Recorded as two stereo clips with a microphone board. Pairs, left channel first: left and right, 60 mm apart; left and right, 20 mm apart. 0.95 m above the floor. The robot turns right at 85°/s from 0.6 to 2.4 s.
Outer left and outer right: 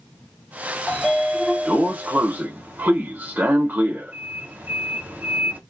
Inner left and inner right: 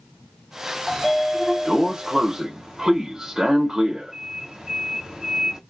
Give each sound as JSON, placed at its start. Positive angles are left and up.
{"t": 0.9, "sound": "a sliding door", "side_deg": 10, "distance_m": 0.6}